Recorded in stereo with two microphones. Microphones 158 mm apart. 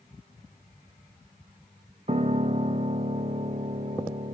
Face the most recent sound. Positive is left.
turn(degrees=-45)  # may be behind; listen again after turning